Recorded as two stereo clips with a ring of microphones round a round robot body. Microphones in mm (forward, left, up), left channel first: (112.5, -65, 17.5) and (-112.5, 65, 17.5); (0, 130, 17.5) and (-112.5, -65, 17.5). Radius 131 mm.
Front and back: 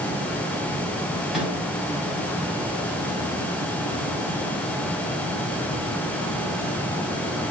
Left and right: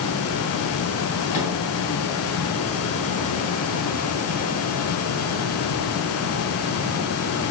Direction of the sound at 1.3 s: 65° left.